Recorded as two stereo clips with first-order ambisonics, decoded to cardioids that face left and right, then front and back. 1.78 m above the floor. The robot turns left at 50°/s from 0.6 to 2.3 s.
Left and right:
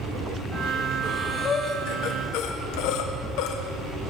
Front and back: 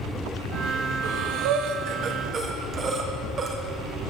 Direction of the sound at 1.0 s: Straight behind.